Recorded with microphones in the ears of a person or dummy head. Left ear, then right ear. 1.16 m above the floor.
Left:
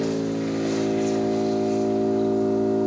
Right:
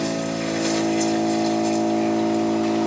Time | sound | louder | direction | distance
0.0 | an engine running | right 1 dB | 75° right (ahead or behind) | 3 m